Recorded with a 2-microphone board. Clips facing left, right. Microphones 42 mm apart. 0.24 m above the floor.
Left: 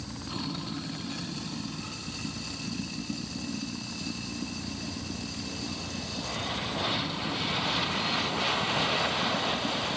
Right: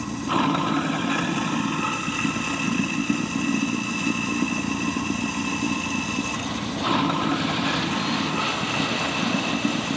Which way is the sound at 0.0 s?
60° right (ahead or behind).